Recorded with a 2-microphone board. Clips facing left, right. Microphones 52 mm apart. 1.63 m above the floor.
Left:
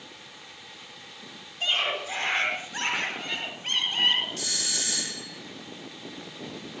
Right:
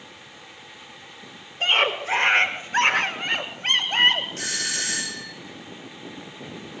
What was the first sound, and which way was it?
A scream, 45° right (ahead or behind).